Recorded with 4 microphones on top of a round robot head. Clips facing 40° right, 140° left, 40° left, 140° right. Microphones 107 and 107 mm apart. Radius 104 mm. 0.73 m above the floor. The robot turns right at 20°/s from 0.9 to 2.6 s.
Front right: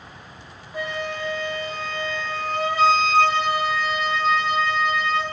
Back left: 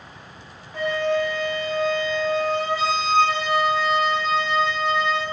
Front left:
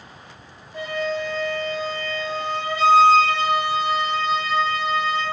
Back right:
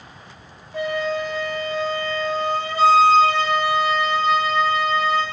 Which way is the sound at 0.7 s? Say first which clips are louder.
Back left 7 dB, back right 2 dB; 120° right.